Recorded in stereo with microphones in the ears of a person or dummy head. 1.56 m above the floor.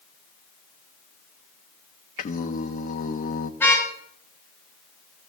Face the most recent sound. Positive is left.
turn(degrees=10)  # may be behind; listen again after turning